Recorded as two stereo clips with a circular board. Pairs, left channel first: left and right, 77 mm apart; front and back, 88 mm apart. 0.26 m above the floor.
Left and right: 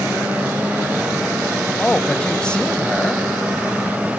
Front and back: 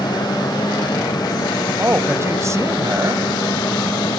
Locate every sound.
1.8 s a man speaking: 155° left, 1.1 m